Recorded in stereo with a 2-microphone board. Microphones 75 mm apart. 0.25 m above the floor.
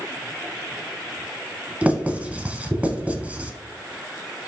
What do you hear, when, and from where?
1.8 s writing: 20° right (ahead or behind), 0.9 m